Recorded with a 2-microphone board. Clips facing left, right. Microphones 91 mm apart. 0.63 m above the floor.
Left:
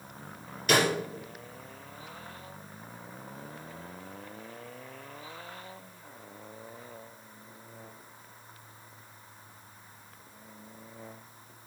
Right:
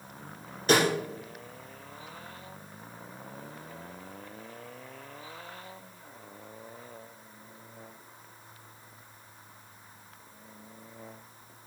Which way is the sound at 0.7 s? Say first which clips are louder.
Right 2 dB; 35° right (ahead or behind).